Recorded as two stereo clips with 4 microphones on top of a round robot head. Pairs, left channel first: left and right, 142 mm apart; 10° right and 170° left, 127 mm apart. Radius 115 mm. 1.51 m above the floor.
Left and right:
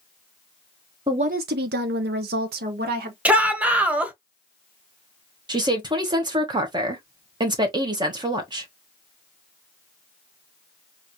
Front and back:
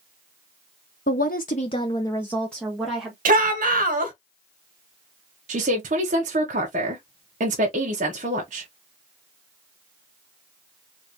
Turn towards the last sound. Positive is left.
turn(degrees=-150)